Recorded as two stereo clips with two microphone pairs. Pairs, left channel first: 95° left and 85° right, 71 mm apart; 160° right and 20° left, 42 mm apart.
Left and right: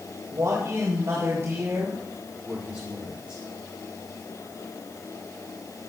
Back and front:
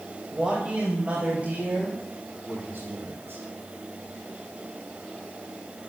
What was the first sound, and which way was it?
A man speaking, 45° right.